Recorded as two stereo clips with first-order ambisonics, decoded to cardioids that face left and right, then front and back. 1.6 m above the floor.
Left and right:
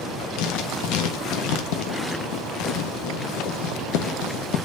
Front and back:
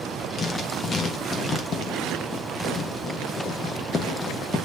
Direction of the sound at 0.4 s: 70° left.